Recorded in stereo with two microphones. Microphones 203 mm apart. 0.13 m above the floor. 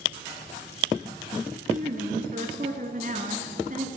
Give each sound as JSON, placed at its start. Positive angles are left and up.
{"t": 1.7, "sound": "a woman speaking", "side_deg": -40, "distance_m": 1.4}